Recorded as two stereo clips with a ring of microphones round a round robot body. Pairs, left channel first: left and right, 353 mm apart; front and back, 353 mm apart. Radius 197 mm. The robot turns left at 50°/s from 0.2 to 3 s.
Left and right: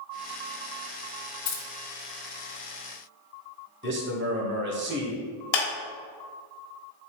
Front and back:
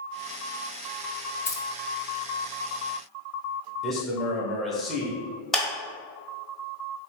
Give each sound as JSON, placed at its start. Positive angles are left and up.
{"t": 1.4, "sound": "keys jangling", "azimuth_deg": 80, "distance_m": 0.8}
{"t": 3.8, "sound": "a man speaking", "azimuth_deg": -90, "distance_m": 1.0}
{"t": 5.5, "sound": "a clap", "azimuth_deg": 90, "distance_m": 1.3}